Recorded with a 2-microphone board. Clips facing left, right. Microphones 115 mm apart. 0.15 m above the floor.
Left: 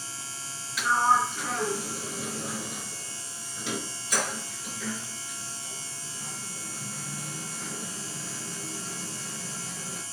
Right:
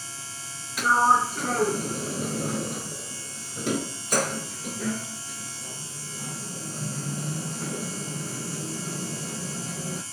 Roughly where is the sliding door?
Right.